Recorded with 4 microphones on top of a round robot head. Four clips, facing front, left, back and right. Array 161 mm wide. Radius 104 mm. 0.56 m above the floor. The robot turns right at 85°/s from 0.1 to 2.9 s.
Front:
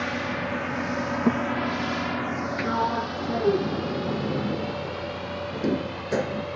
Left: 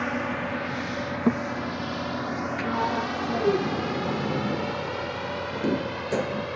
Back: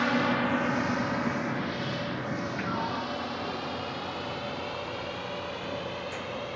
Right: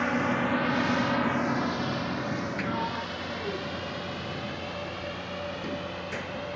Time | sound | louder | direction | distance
0.0 | a drone | right 2 dB, back 3 dB | 175° right | ?
1.3 | a thud | left 4 dB, front 8 dB | 50° left | ?
2.6 | a sliding door | left 5 dB, front 9 dB | 10° left | ?